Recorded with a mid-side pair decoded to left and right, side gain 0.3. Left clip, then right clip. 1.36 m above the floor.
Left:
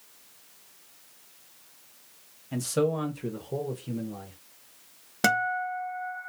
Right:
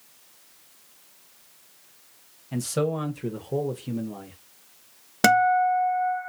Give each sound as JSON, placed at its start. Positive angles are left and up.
{"t": 2.5, "sound": "a man speaking", "azimuth_deg": -5, "distance_m": 1.1}
{"t": 5.2, "sound": "a guitar", "azimuth_deg": -50, "distance_m": 0.7}